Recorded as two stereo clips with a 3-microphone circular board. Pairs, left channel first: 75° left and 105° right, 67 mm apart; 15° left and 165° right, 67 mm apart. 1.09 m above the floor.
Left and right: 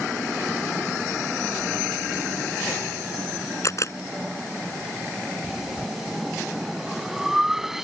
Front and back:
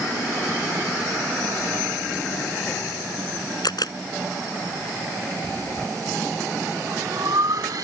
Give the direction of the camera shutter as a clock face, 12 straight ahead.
11 o'clock.